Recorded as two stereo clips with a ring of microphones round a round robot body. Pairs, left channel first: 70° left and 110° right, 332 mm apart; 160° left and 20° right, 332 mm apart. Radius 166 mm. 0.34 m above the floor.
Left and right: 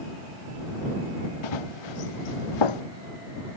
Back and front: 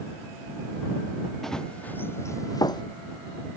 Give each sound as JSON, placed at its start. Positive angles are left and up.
{"t": 1.4, "sound": "running footsteps", "azimuth_deg": 70}